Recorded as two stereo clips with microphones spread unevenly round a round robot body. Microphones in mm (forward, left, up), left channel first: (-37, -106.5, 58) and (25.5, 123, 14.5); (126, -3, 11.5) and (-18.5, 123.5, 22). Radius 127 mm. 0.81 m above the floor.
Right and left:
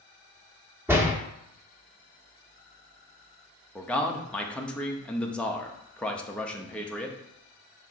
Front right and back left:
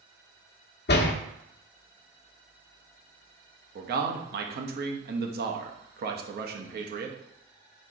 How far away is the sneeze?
No sneeze in this recording.